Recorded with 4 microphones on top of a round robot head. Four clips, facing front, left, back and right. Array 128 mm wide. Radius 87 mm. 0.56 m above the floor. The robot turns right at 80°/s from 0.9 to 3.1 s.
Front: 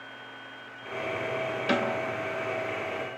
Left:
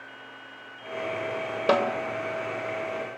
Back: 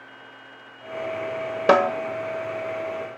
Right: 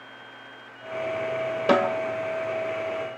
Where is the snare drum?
175° left, 1.7 m; by 1.9 s 170° right, 1.7 m.